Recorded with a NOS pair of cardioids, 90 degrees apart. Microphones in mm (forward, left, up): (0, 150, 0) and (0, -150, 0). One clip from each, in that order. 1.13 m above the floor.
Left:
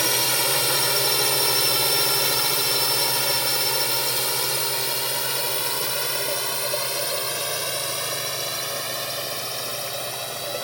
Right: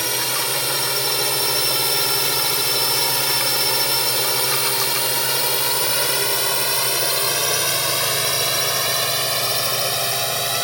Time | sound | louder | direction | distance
0.0 | a drone | even | 5° left | ?